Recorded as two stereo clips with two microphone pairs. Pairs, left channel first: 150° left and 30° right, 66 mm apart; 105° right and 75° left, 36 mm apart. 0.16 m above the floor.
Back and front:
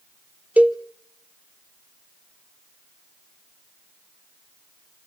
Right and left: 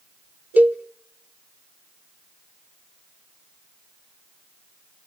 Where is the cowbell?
40° left, 0.9 m.